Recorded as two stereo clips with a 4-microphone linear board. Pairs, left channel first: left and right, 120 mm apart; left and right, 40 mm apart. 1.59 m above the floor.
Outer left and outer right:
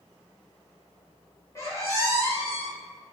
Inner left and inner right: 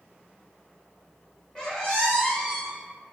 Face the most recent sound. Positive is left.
turn(degrees=25)  # may be behind; listen again after turning